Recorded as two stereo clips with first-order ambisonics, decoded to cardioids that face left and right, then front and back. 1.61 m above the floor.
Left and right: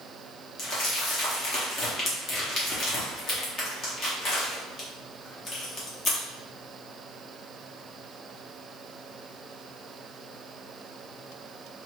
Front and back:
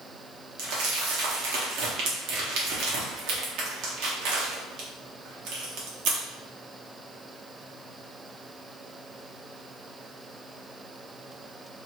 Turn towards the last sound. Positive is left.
turn(degrees=150)